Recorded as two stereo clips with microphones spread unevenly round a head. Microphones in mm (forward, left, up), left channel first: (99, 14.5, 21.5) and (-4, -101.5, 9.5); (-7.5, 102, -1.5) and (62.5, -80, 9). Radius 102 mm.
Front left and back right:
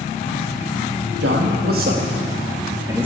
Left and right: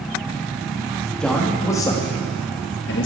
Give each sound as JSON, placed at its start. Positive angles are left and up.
{"t": 1.2, "sound": "a man speaking", "azimuth_deg": -160, "distance_m": 1.8}